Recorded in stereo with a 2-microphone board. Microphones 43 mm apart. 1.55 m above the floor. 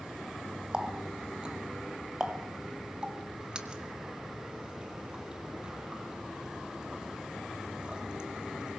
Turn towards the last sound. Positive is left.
turn(degrees=-20)  # may be behind; listen again after turning